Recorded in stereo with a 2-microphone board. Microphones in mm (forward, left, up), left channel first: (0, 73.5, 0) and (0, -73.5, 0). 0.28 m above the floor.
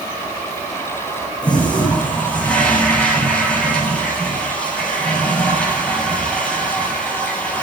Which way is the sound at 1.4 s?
10° left (ahead or behind).